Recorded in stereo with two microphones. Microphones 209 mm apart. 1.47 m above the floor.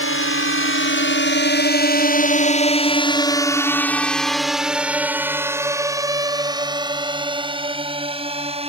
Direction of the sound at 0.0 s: 80° left.